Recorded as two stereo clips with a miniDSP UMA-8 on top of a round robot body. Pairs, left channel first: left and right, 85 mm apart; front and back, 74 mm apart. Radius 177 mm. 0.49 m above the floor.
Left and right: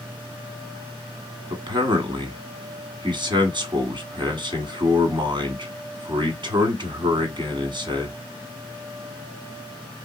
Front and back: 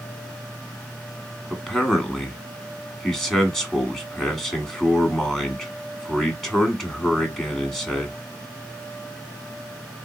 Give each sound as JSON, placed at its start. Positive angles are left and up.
{"t": 1.5, "sound": "a man speaking", "azimuth_deg": -90, "distance_m": 1.3}